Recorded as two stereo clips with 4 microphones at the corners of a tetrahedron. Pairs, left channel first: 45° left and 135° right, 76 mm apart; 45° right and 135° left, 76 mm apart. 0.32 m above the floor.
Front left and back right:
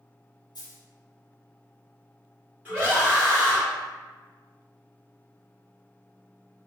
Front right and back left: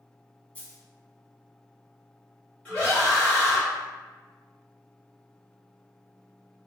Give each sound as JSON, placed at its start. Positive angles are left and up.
{"t": 0.6, "sound": "a dropped coin", "azimuth_deg": 30, "distance_m": 0.6}
{"t": 2.6, "sound": "a scream", "azimuth_deg": -95, "distance_m": 1.6}